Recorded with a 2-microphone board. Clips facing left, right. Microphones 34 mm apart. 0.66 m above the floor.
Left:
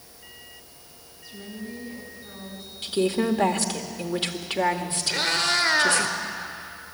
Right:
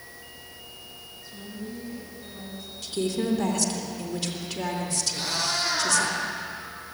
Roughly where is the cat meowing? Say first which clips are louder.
Left 7 dB; left.